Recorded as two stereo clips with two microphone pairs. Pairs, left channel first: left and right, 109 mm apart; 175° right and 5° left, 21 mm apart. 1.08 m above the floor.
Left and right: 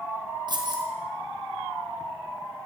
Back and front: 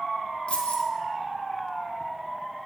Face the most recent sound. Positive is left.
turn(degrees=-140)